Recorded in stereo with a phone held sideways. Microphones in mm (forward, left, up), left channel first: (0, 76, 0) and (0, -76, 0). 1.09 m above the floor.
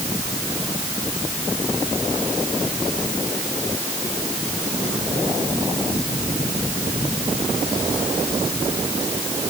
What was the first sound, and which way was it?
Only background noise.